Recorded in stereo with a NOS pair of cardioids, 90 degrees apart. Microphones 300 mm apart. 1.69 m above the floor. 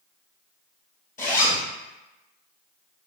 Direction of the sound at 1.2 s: 25° left.